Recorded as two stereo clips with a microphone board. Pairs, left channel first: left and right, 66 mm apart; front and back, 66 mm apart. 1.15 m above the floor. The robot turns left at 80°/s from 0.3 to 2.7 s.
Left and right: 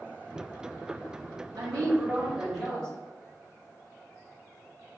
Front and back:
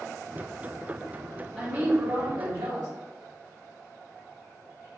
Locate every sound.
1.6 s a woman speaking: 95° right, 0.8 m; by 2.9 s 170° left, 0.8 m